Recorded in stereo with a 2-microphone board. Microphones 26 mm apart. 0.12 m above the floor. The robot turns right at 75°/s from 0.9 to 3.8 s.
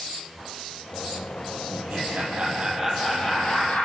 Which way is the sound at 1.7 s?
100° right.